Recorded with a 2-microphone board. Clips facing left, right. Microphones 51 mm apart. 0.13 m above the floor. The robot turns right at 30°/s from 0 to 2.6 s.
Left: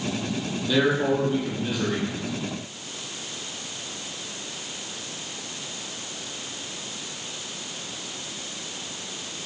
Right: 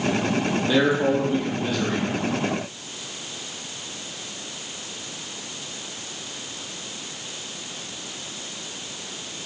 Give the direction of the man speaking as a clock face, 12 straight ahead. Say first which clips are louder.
Right 1 dB; 1 o'clock.